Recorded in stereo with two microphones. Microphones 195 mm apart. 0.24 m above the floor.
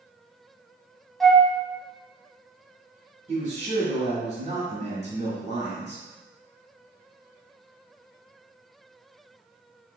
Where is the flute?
Centre (ahead or behind), 1.1 m.